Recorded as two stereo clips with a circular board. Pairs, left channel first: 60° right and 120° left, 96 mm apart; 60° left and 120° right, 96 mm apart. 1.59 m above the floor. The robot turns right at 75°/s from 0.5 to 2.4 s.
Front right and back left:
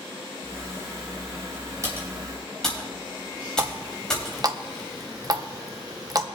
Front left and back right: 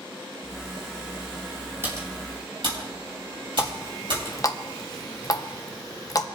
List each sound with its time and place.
1.8 s typing on a keyboard: 175° left, 4 m; by 4.3 s 145° right, 4 m
3.6 s a running tap: 90° left, 0.7 m